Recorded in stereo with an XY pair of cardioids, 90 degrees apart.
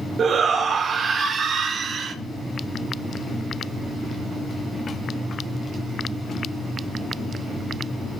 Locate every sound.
0.2 s a shout: 60° right, 2 m